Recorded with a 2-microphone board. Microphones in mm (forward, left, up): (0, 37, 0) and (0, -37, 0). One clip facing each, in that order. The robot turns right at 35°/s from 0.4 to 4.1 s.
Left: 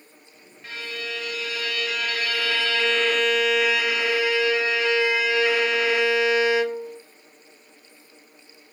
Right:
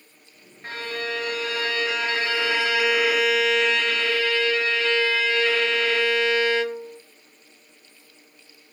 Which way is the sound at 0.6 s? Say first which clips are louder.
Right 4 dB; 100° right.